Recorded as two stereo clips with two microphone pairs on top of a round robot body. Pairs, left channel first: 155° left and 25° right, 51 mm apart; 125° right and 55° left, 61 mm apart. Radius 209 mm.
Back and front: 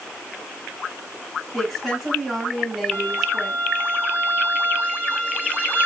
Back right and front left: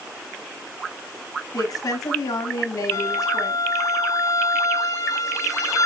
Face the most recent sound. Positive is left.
turn(degrees=-85)